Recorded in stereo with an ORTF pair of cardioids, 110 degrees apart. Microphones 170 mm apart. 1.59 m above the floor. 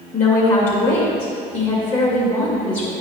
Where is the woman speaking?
45° left, 2.5 m.